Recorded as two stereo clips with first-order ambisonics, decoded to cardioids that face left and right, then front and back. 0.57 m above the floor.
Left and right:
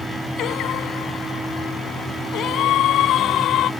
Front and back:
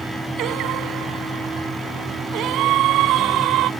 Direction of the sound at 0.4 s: 140° left.